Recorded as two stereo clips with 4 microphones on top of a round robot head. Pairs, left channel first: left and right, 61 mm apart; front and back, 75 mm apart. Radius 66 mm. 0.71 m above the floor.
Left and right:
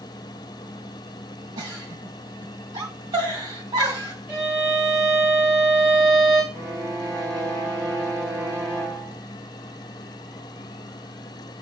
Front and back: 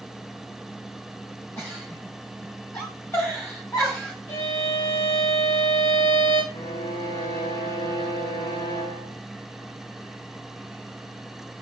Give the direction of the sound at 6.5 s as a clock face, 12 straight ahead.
12 o'clock.